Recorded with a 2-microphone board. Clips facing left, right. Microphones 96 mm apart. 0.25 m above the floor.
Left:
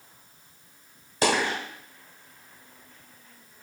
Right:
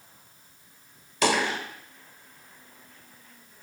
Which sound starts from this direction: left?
A dropped coin, at 1.2 s.